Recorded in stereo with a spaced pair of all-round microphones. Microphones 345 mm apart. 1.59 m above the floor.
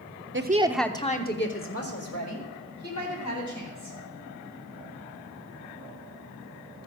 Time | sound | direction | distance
0.3 | a woman speaking | 35° right (ahead or behind) | 0.7 m